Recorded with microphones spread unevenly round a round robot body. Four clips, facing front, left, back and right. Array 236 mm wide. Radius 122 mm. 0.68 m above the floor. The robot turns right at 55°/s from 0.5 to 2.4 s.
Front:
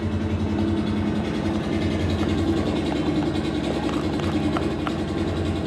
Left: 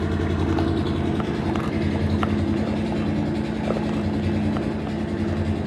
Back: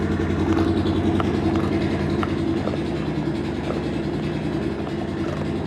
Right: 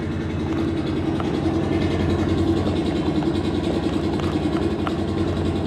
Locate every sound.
0.0 s an engine running: 170° left, 1.9 m; by 5.7 s 85° right, 1.9 m